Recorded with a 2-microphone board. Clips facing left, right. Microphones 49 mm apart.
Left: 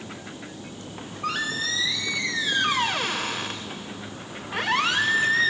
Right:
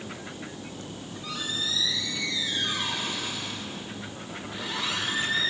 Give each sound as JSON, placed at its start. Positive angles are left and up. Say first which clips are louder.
{"t": 0.9, "sound": "a squeak", "louder": "left 11 dB", "side_deg": 55, "distance_m": 1.9}